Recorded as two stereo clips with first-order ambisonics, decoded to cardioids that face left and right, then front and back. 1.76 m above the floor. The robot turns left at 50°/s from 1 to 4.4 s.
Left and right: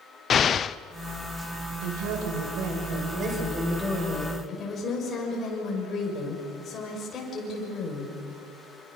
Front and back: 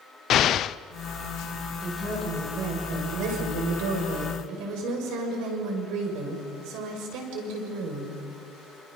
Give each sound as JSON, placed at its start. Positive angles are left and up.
{"t": 0.3, "sound": "an explosion", "azimuth_deg": 35, "distance_m": 0.5}
{"t": 1.8, "sound": "a woman speaking", "azimuth_deg": -75, "distance_m": 6.5}